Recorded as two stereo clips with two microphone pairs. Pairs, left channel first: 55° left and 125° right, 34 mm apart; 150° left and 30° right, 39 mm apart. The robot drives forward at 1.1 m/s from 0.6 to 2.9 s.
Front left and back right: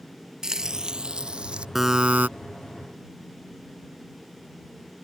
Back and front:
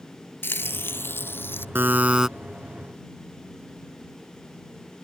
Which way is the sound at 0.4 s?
165° left.